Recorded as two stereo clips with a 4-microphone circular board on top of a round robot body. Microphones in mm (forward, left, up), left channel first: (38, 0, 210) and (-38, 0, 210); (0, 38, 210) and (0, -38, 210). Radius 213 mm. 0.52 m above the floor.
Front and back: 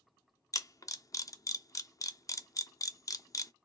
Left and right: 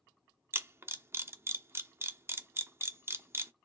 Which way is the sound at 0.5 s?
35° right.